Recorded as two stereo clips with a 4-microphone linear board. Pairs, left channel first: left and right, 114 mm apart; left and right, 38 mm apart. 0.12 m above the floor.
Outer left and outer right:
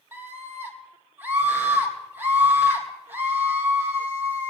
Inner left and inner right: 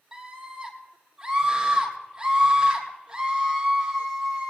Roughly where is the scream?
Centre.